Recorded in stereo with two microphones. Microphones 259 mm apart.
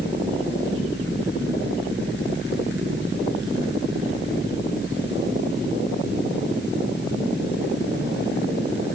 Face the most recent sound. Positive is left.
No sound to turn to.